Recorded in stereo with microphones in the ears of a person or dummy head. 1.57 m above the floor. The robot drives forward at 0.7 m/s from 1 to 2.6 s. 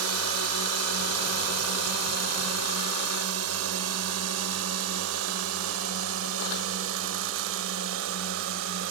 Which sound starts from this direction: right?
A drone, at 0.0 s.